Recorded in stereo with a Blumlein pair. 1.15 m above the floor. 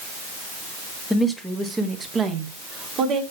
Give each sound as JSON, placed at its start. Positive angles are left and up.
{"t": 1.1, "sound": "a woman speaking", "azimuth_deg": 0, "distance_m": 1.7}